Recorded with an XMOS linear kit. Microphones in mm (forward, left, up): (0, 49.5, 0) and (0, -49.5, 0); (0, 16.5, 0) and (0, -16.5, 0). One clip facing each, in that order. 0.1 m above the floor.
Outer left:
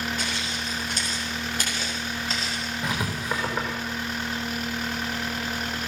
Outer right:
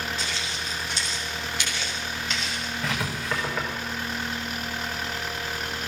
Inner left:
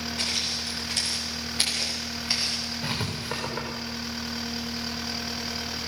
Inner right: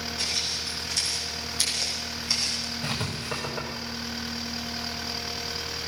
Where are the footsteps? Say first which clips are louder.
Outer left 2 dB, inner left 1 dB; 55° left (ahead or behind), 7.5 m; by 2.7 s 30° left (ahead or behind), 6 m.